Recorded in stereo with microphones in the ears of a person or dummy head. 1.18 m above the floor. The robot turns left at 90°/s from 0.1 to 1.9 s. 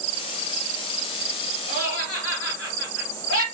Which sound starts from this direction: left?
Laughter, at 1.7 s.